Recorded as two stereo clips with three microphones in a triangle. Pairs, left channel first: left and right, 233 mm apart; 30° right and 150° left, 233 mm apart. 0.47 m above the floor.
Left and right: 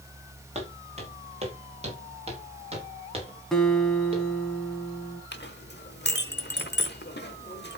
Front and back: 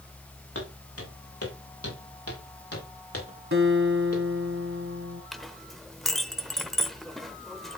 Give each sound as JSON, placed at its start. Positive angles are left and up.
{"t": 0.6, "sound": "footsteps", "azimuth_deg": -30, "distance_m": 5.5}
{"t": 3.5, "sound": "a guitar", "azimuth_deg": 180, "distance_m": 1.6}
{"t": 5.3, "sound": "a clink", "azimuth_deg": 60, "distance_m": 1.1}